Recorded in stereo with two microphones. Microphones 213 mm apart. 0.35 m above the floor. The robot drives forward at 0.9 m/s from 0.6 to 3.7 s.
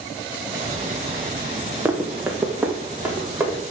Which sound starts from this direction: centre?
Running footsteps, at 1.9 s.